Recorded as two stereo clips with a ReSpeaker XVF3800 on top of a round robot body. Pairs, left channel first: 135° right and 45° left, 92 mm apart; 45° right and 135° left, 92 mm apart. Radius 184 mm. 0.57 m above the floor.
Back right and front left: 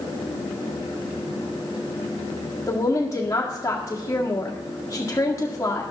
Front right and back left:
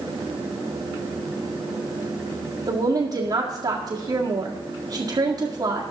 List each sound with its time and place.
2.7 s a woman speaking: 165° left, 1.9 m